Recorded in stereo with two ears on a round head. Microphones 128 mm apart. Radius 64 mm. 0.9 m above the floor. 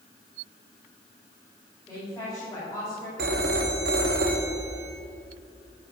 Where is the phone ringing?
70° right (ahead or behind), 1.1 m.